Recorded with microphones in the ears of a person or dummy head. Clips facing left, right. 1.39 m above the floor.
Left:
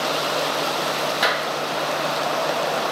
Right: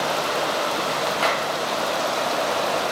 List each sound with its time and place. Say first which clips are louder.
1.2 s a clap: even; 20° left (ahead or behind), 1.1 m